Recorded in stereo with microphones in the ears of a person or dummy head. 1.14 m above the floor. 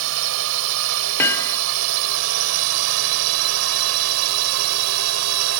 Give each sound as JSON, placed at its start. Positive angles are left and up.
{"t": 0.0, "sound": "a drone", "side_deg": -70}
{"t": 1.2, "sound": "hammering", "side_deg": 15}